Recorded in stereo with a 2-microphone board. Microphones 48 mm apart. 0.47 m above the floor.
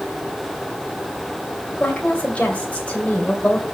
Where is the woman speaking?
20° left (ahead or behind), 2 m.